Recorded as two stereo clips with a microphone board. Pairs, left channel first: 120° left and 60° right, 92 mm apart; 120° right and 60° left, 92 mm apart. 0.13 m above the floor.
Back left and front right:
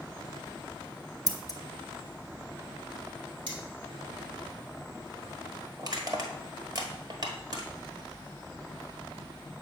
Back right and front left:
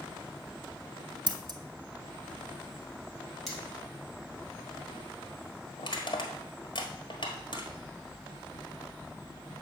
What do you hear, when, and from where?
1.3 s scissors: 80° left, 0.6 m
3.5 s cutlery clinking: 35° right, 2.5 m
5.8 s crushing: 100° right, 1.2 m